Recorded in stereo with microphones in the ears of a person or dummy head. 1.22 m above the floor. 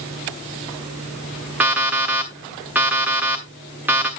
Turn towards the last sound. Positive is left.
turn(degrees=-5)  # may be behind; listen again after turning